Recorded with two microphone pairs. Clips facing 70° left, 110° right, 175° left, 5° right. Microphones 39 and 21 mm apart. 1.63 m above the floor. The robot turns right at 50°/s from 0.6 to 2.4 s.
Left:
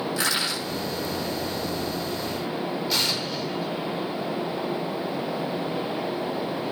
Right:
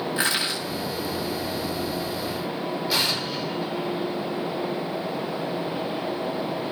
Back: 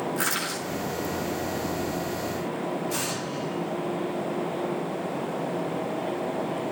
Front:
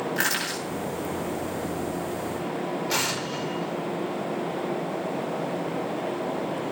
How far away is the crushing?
About 9.5 m.